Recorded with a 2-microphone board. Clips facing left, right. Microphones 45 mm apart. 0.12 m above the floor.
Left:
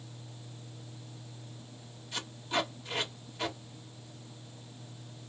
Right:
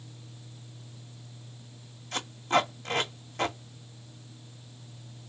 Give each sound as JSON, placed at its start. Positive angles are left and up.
{"t": 2.1, "sound": "tape being pulled", "side_deg": -80, "distance_m": 2.0}